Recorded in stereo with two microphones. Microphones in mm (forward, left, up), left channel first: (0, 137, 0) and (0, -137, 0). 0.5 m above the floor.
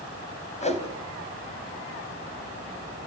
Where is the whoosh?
25° left (ahead or behind), 2.5 m.